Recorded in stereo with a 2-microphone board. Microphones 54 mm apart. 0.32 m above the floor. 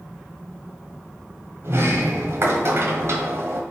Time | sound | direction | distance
1.6 | a sliding door | 55° right (ahead or behind) | 1.1 m